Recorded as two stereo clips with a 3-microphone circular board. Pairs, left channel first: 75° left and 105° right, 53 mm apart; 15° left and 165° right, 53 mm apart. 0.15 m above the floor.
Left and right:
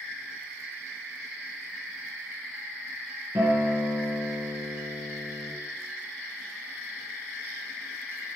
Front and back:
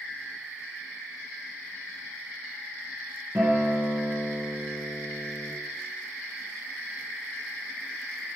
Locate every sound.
3.4 s a guitar: 140° right, 2.5 m